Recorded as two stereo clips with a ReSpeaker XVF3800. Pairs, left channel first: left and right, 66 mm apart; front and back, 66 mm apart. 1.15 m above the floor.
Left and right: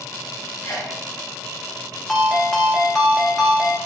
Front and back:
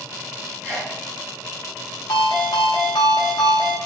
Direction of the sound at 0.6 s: 130° left.